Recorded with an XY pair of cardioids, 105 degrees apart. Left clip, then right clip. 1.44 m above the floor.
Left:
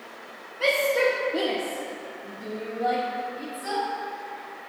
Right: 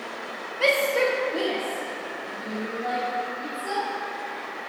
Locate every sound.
0.6 s a shout: 30° right, 1.2 m; by 3.8 s 80° left, 3.5 m